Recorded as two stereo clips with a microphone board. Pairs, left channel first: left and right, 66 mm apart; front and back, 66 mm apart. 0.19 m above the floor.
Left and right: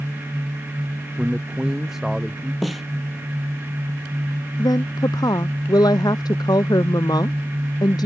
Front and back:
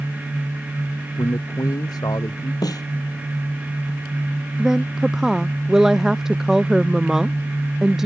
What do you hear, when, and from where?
1.2 s a man speaking: 5° right
2.6 s a snare drum: straight ahead
4.6 s a woman speaking: 100° left